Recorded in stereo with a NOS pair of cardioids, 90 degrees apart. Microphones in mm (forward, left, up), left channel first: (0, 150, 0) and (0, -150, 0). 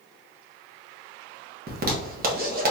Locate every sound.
1.7 s a zipper: 30° right, 1.2 m